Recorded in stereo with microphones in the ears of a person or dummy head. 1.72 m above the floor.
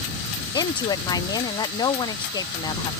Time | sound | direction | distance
0.5 | a woman speaking | 20° left (ahead or behind) | ?